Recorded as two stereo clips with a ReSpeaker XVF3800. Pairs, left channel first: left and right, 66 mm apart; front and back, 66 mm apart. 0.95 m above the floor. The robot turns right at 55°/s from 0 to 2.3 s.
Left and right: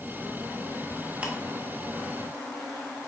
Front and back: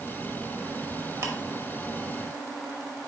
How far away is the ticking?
About 1.0 m.